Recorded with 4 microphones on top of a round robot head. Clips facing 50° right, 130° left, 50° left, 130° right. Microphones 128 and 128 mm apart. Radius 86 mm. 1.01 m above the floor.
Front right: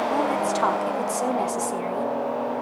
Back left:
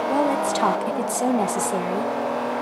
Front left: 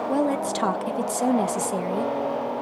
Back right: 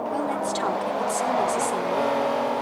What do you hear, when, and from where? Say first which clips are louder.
0.1 s a woman speaking: back left 2 dB, front left 5 dB; 70° left, 1.6 m